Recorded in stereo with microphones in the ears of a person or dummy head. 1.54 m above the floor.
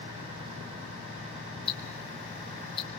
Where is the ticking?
35° left (ahead or behind), 3.5 m.